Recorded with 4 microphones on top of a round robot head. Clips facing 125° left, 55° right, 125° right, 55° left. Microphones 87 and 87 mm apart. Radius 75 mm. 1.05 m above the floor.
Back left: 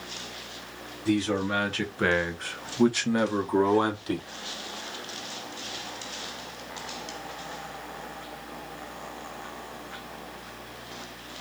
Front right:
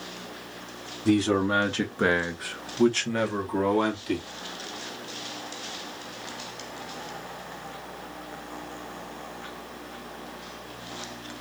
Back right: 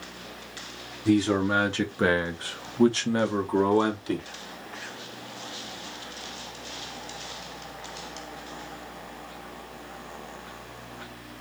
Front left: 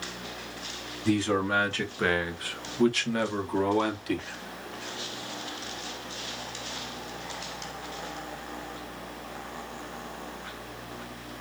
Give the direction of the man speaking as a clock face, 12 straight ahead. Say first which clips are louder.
Front right 3 dB, back right 3 dB; 2 o'clock.